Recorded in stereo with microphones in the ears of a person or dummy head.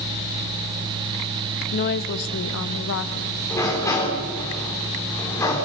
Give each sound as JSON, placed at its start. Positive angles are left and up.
{"t": 1.7, "sound": "a woman speaking", "side_deg": 40, "distance_m": 0.9}
{"t": 3.5, "sound": "a sliding door", "side_deg": 15, "distance_m": 4.5}